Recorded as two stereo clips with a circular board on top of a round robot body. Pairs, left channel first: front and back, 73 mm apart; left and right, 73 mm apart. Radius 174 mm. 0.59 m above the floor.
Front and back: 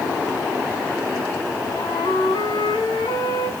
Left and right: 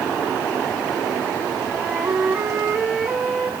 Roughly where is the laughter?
I don't hear laughter.